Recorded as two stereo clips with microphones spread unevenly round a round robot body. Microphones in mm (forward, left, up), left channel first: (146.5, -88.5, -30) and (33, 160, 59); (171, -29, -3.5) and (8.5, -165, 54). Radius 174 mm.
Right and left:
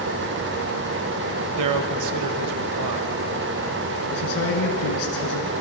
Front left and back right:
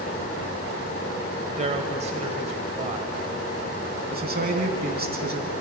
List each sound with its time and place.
1.6 s a man speaking: 145° left, 1.9 m
4.1 s a man speaking: 90° right, 5 m